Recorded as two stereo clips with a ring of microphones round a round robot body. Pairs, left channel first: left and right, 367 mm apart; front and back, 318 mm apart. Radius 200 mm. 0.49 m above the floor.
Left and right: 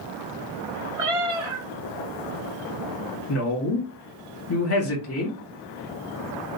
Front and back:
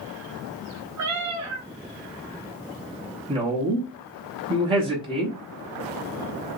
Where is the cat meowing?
135° right, 0.9 m.